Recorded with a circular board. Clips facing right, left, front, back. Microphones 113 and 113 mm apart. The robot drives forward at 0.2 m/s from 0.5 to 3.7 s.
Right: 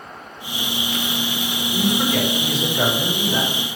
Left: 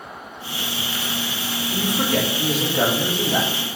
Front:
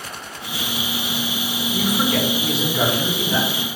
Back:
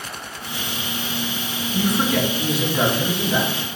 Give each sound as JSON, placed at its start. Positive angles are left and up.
{"t": 1.7, "sound": "a man speaking", "azimuth_deg": 90, "distance_m": 4.0}